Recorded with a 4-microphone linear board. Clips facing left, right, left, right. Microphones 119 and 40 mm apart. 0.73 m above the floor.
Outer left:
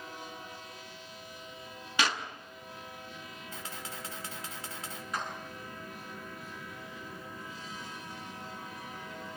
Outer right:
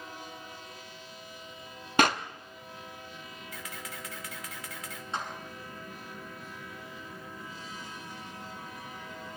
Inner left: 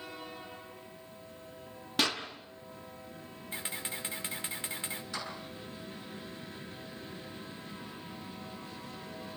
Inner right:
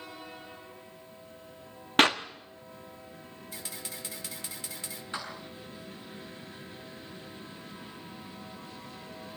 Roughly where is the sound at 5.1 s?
Right.